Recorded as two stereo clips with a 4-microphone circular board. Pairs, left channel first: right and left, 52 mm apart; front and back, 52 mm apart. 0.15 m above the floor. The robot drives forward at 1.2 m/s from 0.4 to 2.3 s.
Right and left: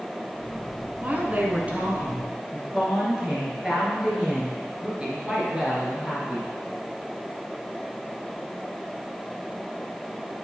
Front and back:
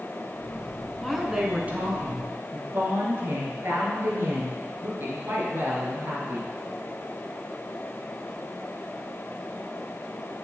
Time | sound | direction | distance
1.0 | a woman speaking | 80° left | 1.2 m